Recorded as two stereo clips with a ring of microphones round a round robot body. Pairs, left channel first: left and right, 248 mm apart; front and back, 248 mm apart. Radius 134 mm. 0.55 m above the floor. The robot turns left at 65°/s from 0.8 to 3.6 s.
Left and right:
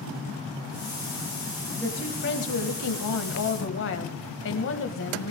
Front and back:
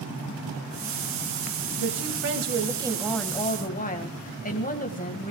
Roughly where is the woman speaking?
Behind.